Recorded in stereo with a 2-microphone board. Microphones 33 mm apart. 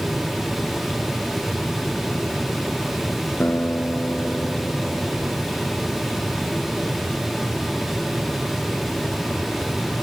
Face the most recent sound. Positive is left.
turn(degrees=70)  # may be behind; listen again after turning